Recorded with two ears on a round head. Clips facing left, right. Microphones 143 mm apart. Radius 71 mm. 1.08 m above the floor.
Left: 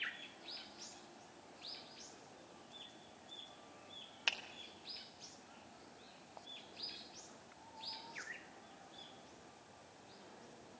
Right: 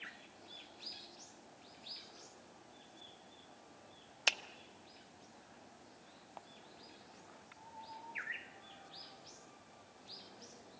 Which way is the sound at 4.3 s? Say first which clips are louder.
Right 6 dB; 60° right (ahead or behind).